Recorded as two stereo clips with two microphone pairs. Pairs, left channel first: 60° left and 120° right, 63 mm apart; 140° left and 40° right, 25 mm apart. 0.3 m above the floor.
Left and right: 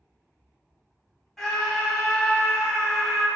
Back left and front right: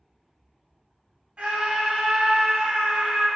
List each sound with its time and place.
1.4 s a scream: 25° right, 2 m